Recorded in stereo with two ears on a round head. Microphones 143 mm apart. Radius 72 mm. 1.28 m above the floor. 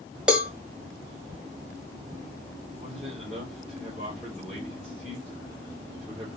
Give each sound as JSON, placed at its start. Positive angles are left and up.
{"t": 0.3, "sound": "a cowbell", "side_deg": -5, "distance_m": 1.3}
{"t": 2.8, "sound": "a man speaking", "side_deg": -5, "distance_m": 3.5}